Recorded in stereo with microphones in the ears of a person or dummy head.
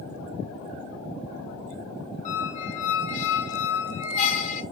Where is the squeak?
40° left (ahead or behind), 1.1 m.